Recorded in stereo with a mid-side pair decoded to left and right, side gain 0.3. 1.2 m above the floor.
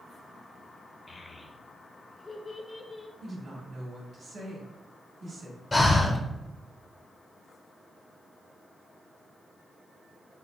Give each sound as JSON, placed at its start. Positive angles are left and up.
{"t": 1.1, "sound": "a child speaking", "azimuth_deg": 45, "distance_m": 0.7}
{"t": 3.2, "sound": "a woman speaking", "azimuth_deg": -60, "distance_m": 1.2}
{"t": 5.7, "sound": "breathing", "azimuth_deg": 35, "distance_m": 0.7}